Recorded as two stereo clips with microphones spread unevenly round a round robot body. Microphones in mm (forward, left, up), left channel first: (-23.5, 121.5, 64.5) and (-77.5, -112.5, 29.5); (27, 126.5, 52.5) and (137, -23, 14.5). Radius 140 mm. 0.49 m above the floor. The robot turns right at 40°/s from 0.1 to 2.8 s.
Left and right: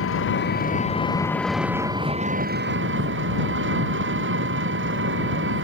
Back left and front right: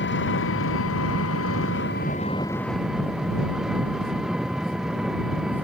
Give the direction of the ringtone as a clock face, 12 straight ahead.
No ringtone in this recording.